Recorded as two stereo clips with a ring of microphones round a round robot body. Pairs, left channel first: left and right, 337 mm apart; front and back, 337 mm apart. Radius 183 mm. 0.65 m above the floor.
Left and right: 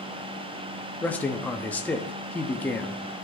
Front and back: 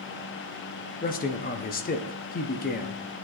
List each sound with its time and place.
1.0 s a man speaking: 10° left, 0.6 m